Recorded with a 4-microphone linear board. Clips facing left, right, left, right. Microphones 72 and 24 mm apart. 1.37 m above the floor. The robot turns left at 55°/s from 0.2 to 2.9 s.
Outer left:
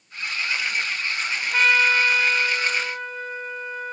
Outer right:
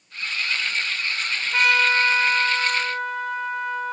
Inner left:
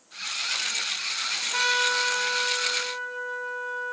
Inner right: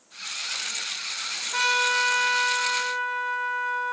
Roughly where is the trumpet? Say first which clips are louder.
Even, inner right 2 dB; ahead.